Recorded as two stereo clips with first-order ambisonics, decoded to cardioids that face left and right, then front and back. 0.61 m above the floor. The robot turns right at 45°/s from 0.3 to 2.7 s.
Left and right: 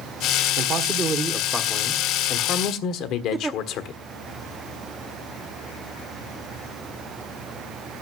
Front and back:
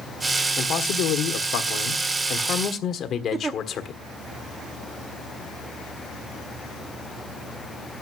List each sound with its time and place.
0.6 s a man speaking: 45° right, 1.4 m; by 4.0 s 55° left, 1.4 m
3.3 s a giggle: 150° right, 0.6 m